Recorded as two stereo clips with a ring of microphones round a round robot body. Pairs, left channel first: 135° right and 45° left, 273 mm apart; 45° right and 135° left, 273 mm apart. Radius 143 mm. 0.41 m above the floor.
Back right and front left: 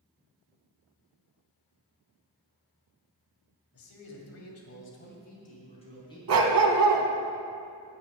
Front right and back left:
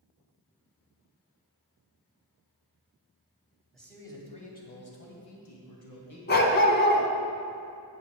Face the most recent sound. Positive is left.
turn(degrees=10)